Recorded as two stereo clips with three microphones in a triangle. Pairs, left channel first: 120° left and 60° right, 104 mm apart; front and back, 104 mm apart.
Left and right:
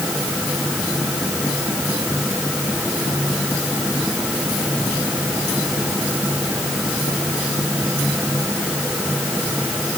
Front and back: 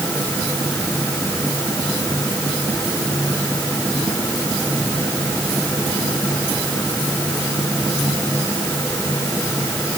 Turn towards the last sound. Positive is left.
No sound to turn to.